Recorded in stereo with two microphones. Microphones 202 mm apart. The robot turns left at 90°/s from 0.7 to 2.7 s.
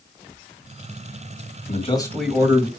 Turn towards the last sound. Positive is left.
turn(degrees=-40)